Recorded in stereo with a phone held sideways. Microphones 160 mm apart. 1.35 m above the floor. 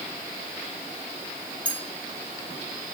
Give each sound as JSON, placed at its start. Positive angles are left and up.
{"t": 1.6, "sound": "a clink", "side_deg": 10, "distance_m": 2.5}